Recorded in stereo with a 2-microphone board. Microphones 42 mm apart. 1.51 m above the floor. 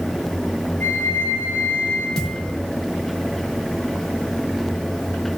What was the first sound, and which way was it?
A flute, 35° left (ahead or behind).